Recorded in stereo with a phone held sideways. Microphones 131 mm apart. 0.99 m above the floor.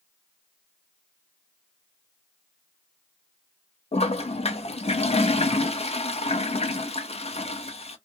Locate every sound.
3.9 s a toilet flushing: 50° left (ahead or behind), 0.5 m